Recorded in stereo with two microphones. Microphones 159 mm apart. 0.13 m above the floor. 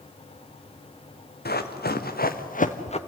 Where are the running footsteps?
90° left, 2 m; by 3.0 s 40° left (ahead or behind), 1.4 m.